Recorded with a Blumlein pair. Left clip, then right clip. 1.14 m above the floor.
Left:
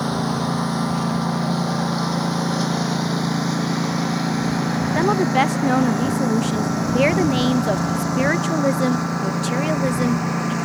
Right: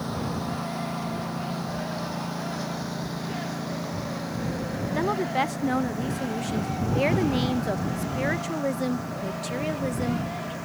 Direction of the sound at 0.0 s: 60° left.